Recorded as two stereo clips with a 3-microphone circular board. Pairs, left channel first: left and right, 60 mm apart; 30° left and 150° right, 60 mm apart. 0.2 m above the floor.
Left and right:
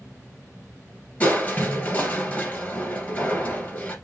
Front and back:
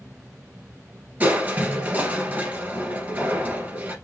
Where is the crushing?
145° left, 2 m.